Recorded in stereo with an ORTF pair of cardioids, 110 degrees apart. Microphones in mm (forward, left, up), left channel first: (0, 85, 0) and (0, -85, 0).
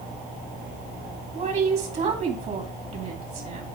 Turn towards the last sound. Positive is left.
turn(degrees=-45)